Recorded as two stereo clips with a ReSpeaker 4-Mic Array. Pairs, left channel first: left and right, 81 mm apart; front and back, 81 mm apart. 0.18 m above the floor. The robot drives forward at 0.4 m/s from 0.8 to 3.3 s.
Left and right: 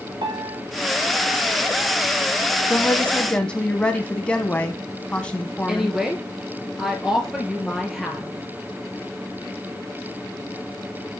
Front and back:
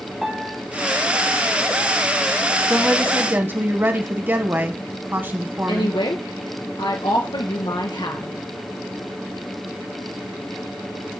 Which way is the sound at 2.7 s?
130° left.